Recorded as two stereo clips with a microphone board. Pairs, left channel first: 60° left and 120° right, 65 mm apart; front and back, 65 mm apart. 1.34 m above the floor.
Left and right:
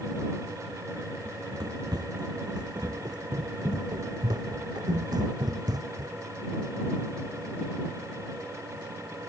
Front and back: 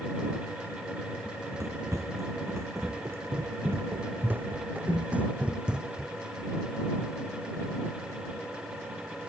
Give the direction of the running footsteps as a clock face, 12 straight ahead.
5 o'clock.